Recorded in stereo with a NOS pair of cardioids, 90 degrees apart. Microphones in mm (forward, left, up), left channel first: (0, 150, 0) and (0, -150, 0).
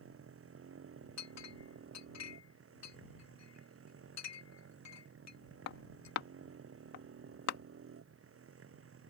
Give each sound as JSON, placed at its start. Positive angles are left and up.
{"t": 0.0, "sound": "a motorcycle", "azimuth_deg": -45}
{"t": 1.2, "sound": "a clink", "azimuth_deg": 65}